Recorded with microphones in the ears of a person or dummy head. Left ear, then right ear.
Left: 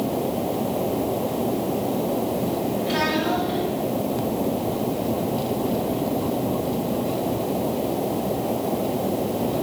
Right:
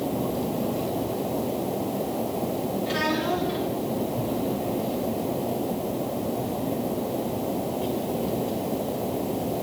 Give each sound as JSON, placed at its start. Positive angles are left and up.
{"t": 2.9, "sound": "a child speaking", "side_deg": 0, "distance_m": 3.0}